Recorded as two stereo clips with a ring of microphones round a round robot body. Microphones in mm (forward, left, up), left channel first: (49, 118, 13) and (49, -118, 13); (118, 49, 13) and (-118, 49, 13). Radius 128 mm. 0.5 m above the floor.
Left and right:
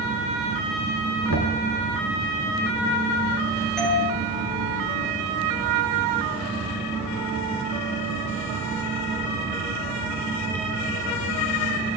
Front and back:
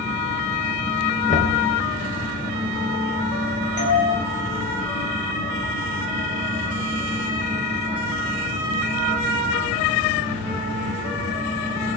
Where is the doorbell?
Straight ahead, 10 m.